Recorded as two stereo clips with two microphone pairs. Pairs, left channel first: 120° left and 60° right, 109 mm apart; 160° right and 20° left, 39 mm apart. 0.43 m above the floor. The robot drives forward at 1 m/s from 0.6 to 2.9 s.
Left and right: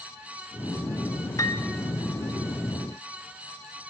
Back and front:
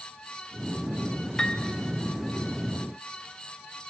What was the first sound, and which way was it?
A piano, 140° left.